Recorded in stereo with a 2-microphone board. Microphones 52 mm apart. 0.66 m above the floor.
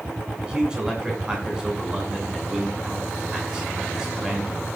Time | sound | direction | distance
0.4 | a man speaking | 10° right (ahead or behind) | 7 m